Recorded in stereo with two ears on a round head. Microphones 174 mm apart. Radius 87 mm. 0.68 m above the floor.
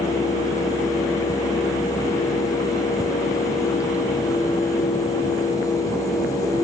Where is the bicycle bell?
I don't hear a bicycle bell.